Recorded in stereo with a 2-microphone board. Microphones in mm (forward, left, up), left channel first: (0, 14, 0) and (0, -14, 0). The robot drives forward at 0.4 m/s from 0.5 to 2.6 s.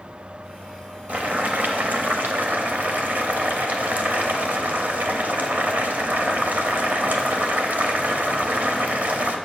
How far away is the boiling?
About 1.1 m.